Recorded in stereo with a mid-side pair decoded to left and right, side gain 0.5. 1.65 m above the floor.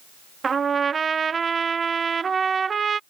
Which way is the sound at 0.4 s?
35° right.